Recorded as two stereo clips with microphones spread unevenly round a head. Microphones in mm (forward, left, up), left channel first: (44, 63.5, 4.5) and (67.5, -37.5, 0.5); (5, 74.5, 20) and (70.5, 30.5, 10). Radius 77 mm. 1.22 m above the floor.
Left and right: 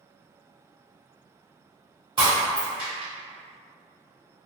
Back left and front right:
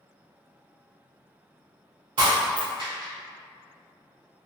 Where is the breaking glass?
35° right, 1.9 m.